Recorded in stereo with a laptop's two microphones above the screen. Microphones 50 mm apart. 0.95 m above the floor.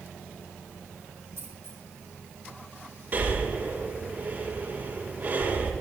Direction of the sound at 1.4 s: 70° right (ahead or behind).